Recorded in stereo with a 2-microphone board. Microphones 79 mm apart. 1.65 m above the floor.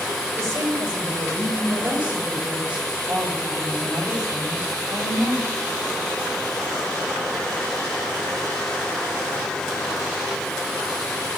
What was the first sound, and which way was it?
A woman speaking, 35° right (ahead or behind).